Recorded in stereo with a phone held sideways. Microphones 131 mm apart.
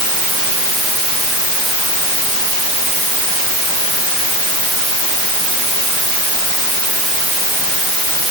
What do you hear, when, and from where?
Only background noise.